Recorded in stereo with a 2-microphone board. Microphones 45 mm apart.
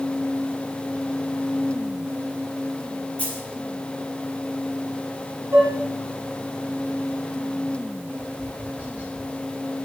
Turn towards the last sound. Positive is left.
turn(degrees=-25)  # may be behind; listen again after turning